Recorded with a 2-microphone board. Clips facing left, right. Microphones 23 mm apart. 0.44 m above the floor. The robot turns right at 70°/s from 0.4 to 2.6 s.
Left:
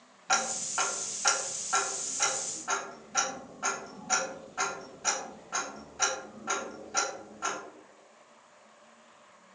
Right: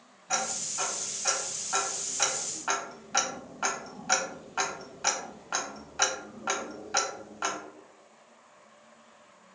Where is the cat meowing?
No cat meowing in this recording.